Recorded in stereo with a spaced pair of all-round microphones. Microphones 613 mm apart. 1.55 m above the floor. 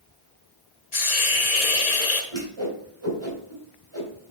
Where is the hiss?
75° left (ahead or behind), 1.2 m.